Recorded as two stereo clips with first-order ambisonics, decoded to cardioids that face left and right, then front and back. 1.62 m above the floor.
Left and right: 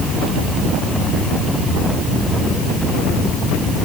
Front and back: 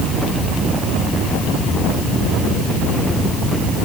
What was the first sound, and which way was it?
Only background noise.